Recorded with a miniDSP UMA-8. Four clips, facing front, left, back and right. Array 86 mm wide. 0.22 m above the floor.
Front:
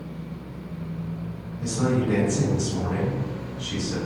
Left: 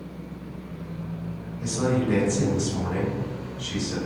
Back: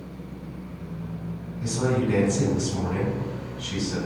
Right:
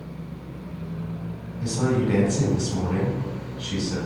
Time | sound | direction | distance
1.6 | a man speaking | 105° right | 1.9 m